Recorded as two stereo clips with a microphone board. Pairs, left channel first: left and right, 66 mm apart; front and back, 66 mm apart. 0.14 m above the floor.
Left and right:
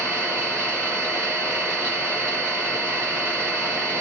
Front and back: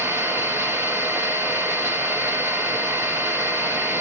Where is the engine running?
140° left, 2 m.